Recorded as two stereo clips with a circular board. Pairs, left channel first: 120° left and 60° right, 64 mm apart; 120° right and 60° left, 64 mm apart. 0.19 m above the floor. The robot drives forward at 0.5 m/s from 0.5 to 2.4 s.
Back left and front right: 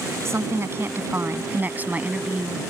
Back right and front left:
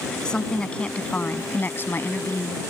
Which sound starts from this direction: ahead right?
A woman speaking, at 0.2 s.